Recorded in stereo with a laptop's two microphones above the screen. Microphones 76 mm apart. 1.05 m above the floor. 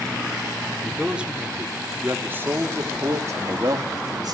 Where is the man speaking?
10° right (ahead or behind), 3 m; by 4.3 s 60° right (ahead or behind), 2.5 m.